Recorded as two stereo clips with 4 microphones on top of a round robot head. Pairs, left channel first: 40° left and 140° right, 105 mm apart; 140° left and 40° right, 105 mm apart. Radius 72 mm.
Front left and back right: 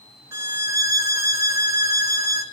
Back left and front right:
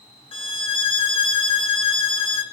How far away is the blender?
I don't hear a blender.